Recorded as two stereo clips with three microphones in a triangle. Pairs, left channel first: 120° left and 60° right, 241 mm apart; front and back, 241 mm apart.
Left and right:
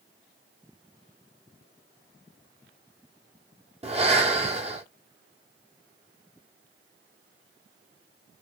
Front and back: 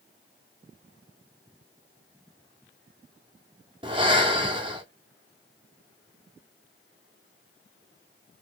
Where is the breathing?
115° right, 1.4 m.